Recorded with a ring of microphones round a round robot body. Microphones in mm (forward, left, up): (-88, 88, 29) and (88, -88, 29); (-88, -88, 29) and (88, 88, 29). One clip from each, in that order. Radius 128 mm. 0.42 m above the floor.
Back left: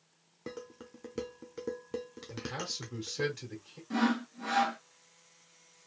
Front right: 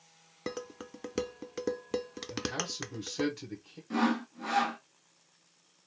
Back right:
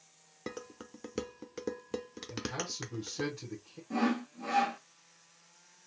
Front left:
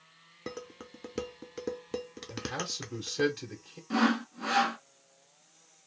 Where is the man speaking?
40° left, 2.0 m.